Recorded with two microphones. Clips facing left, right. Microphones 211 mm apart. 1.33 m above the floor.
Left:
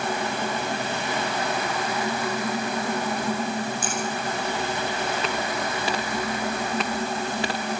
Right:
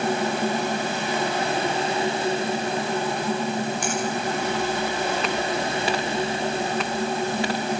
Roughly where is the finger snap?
Right.